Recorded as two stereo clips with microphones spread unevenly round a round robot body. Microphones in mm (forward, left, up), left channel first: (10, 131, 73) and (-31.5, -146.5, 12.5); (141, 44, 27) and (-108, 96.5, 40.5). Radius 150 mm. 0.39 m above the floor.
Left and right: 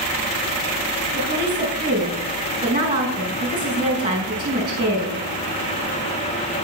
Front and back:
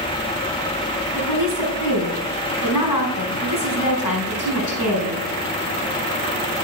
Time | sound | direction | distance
1.1 | a woman speaking | 30° right | 4 m